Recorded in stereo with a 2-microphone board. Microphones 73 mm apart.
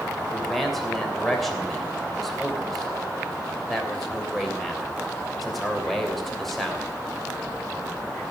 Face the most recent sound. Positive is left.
turn(degrees=0)  # may be behind; listen again after turning